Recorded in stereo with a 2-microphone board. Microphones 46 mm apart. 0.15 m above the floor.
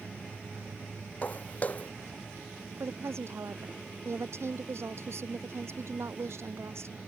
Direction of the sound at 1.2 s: 30° left (ahead or behind).